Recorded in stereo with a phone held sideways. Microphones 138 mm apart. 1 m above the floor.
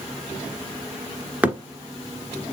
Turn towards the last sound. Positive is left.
turn(degrees=-10)  # may be behind; listen again after turning